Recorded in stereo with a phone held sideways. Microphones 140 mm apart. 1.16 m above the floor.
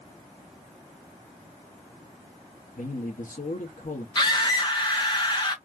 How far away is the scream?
About 2 m.